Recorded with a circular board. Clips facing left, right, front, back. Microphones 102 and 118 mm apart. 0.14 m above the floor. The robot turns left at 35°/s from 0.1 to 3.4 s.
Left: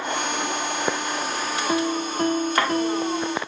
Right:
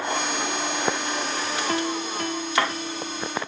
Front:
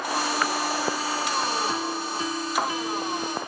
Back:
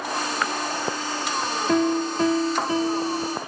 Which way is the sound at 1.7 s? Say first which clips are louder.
Left 5 dB, back 8 dB; 165° left.